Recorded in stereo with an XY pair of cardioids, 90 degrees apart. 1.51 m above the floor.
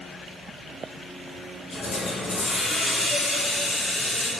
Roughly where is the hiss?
Left.